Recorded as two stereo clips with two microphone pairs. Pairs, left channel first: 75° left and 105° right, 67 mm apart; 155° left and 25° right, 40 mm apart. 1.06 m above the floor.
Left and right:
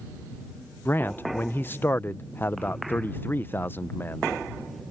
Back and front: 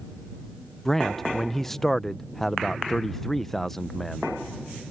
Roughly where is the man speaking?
Left.